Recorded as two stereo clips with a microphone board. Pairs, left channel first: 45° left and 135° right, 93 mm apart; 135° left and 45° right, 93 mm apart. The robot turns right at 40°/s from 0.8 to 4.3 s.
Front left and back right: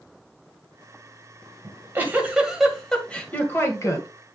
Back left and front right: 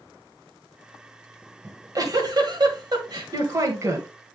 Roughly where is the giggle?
Right.